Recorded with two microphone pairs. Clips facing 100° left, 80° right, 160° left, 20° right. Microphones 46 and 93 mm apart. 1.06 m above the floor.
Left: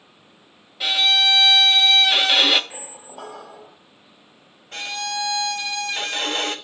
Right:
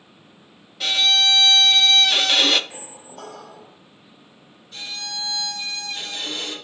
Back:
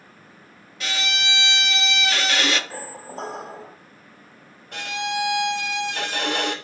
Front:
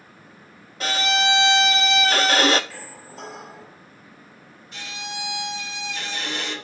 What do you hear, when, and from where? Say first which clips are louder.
0.8 s a violin: even, front 7 dB; 15° left, 0.7 m
2.7 s a squeak: left 1 dB, back 6 dB; 170° left, 0.8 m
4.7 s a violin: left 6 dB, back 9 dB; 130° left, 1.1 m